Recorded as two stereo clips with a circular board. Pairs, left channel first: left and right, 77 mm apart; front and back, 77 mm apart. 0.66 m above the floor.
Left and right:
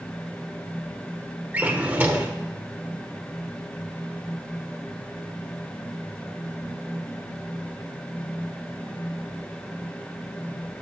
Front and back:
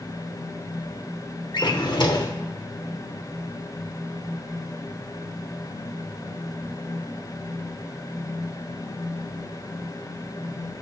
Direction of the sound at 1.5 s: 20° right.